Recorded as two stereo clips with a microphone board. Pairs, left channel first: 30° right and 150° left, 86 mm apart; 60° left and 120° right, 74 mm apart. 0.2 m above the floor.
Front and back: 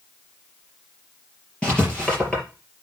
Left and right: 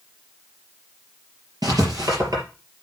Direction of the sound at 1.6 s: 105° right.